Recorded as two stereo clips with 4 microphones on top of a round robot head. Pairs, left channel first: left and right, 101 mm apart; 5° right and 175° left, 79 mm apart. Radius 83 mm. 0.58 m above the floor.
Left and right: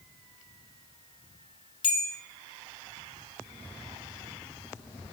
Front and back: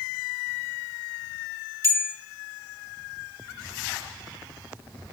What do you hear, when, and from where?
1.8 s a bell: 125° left, 1.1 m